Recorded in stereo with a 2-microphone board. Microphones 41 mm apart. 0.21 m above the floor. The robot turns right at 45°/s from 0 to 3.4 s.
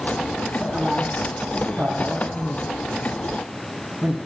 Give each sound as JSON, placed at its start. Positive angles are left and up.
{"t": 0.6, "sound": "a man speaking", "side_deg": -20, "distance_m": 1.6}